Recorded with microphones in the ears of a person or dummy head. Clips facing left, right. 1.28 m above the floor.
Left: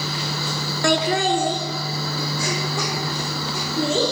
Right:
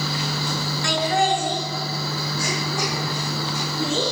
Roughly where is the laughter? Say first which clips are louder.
Left 2 dB; left.